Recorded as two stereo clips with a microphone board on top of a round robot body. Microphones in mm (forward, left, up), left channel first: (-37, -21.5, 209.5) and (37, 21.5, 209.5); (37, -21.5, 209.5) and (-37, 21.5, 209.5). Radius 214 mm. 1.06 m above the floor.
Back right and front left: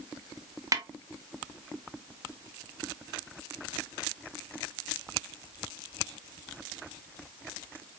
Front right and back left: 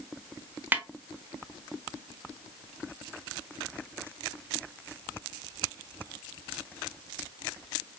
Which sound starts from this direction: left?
A snare drum, at 0.7 s.